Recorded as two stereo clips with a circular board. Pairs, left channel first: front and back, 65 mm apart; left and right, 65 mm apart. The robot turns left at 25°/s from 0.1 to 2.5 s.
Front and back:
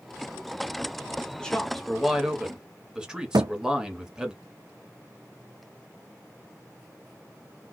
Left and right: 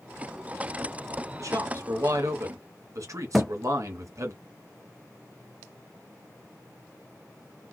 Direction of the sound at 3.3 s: Straight behind.